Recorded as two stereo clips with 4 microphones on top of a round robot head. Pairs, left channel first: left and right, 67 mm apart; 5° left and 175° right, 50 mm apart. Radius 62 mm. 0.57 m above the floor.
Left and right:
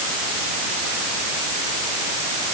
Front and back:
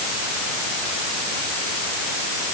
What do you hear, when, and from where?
Only background noise.